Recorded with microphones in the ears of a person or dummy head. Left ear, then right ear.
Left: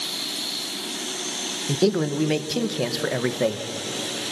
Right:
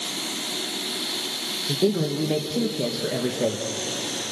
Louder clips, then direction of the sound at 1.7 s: Left 2 dB; 50° left (ahead or behind).